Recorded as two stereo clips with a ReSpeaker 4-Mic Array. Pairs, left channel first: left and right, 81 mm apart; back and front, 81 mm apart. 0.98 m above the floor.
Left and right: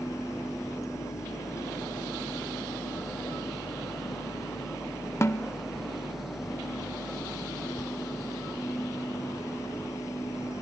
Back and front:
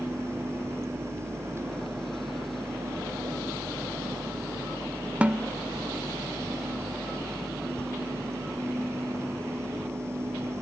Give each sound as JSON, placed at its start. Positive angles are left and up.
{"t": 5.2, "sound": "a snare drum", "azimuth_deg": 65}